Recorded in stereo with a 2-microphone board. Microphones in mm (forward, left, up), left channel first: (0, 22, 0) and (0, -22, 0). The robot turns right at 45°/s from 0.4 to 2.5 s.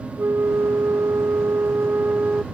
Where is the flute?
120° right; by 2.4 s 30° right.